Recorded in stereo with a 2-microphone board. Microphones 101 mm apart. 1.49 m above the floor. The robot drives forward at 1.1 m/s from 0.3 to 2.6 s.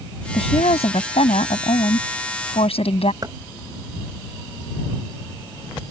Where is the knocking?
40° right (ahead or behind).